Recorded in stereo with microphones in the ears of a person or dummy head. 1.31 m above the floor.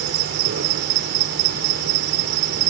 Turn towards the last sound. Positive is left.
turn(degrees=-50)  # may be behind; listen again after turning